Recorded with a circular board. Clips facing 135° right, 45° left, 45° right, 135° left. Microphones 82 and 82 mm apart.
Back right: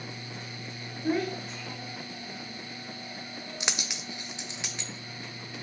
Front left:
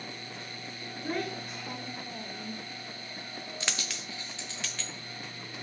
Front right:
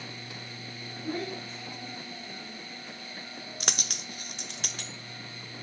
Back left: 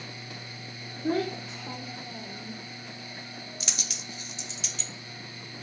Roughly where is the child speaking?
Behind left.